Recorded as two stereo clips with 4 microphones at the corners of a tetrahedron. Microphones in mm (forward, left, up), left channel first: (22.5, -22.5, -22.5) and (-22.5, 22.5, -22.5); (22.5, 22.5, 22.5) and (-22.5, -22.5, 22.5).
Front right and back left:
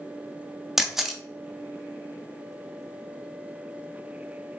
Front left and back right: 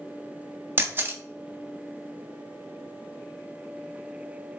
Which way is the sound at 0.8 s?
145° right.